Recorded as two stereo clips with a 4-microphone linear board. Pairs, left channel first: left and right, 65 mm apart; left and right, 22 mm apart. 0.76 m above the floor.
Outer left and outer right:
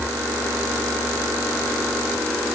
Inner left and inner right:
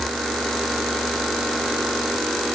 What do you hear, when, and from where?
Only background noise.